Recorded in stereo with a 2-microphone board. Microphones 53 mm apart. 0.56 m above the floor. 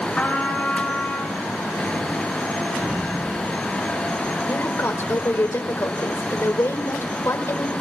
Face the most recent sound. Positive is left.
turn(degrees=55)  # may be behind; listen again after turning